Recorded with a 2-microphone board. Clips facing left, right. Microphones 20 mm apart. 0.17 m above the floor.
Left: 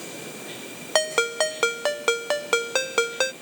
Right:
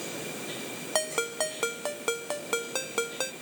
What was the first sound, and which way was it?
A ringtone, 40° left (ahead or behind).